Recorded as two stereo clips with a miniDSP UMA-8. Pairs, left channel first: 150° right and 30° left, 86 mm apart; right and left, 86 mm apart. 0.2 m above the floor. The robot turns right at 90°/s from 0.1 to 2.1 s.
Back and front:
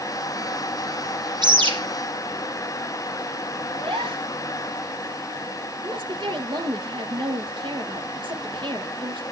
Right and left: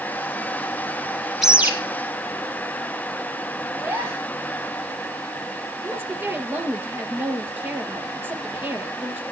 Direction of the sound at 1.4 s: Straight ahead.